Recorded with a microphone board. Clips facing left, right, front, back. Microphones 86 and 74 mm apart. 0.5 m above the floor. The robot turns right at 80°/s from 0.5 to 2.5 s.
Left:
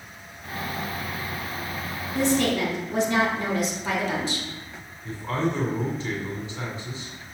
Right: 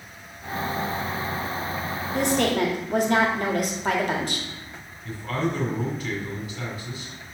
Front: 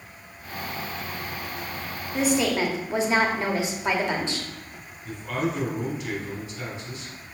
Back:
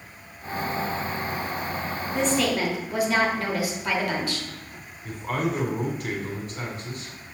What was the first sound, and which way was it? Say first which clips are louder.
A woman speaking: even, front 1 dB; 90° right.